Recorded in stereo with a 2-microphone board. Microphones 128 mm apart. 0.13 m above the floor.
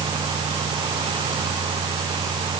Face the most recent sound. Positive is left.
No sound to turn to.